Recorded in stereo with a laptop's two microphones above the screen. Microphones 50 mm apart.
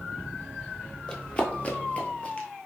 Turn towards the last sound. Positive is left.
turn(degrees=20)  # may be behind; listen again after turning